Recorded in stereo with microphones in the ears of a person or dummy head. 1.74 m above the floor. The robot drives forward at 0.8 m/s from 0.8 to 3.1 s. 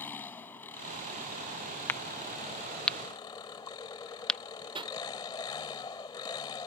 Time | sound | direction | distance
0.0 | an engine running | 15° left (ahead or behind) | ?
1.9 | a crack | 10° left (ahead or behind) | ?
4.8 | a pop | 25° right (ahead or behind) | ?